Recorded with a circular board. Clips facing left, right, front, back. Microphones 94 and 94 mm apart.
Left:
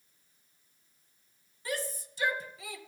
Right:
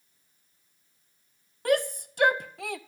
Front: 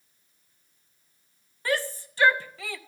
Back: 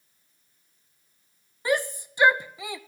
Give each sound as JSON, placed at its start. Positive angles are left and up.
{"t": 1.6, "sound": "a shout", "azimuth_deg": -110, "distance_m": 0.6}